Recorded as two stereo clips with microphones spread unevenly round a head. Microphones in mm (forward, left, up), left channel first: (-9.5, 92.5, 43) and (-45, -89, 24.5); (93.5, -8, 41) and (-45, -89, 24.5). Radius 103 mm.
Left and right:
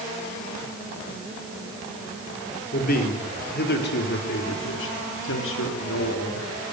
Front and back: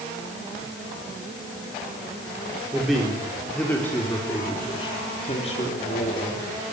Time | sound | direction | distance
2.7 | a man speaking | 120° left | 4 m